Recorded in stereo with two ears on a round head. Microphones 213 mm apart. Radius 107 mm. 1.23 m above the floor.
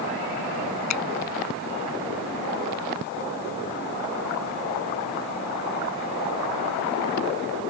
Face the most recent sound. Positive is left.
turn(degrees=80)